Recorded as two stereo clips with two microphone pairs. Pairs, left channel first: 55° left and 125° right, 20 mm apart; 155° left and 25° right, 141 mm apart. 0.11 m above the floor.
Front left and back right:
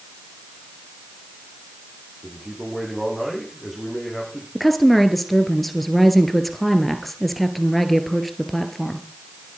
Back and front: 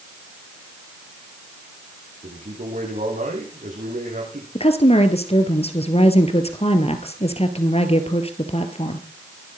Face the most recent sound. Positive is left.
turn(degrees=140)